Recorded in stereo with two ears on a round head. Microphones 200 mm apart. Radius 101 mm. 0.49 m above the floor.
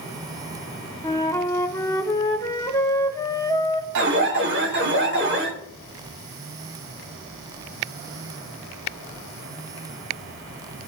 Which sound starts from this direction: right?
An alarm, at 4.0 s.